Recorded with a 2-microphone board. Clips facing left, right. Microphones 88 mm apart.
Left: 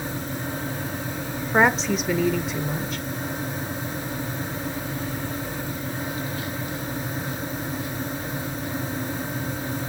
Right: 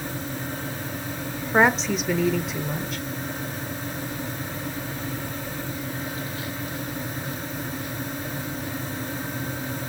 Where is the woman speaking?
Centre (ahead or behind), 1.0 m.